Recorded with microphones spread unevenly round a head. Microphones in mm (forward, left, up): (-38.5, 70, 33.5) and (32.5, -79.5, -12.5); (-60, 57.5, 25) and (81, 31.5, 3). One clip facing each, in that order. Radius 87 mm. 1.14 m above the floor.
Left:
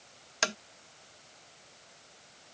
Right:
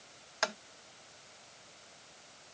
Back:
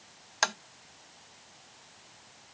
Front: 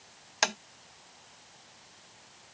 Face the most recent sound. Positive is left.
turn(degrees=60)